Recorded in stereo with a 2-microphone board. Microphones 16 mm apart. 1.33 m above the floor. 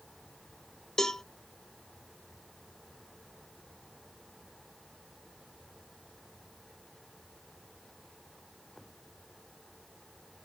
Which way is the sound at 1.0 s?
30° left (ahead or behind).